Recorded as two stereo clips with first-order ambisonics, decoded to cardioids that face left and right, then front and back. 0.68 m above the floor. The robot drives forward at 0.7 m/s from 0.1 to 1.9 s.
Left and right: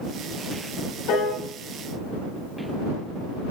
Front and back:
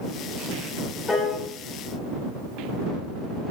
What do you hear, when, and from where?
1.1 s a piano: 70° left, 2.0 m; by 1.4 s 80° left, 1.9 m